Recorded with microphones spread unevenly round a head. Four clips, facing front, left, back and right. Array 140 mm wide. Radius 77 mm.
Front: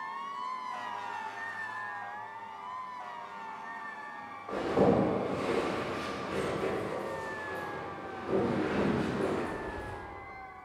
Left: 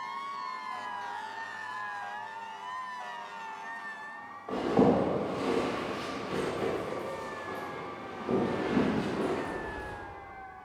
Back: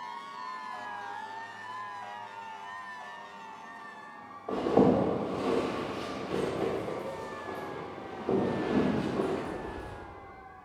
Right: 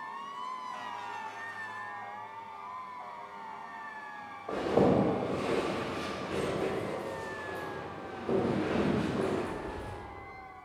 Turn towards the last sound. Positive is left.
turn(degrees=-175)